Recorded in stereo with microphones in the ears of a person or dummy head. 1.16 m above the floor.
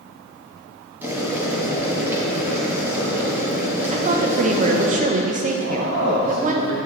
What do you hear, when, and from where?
1.0 s boiling: 10° right (ahead or behind), 2 m
3.9 s a woman speaking: 45° right (ahead or behind), 0.9 m
5.5 s a man speaking: 85° right, 1.8 m